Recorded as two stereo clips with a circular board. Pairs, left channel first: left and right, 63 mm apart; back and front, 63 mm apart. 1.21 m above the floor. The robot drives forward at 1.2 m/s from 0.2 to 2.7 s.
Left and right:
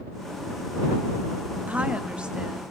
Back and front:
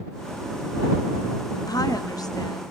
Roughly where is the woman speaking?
Behind.